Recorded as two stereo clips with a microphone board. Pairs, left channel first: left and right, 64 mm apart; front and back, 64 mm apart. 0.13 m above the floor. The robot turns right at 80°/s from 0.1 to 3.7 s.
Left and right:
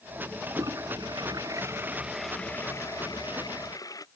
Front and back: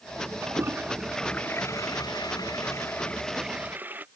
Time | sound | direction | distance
0.4 | a toilet flushing | 145° right | ?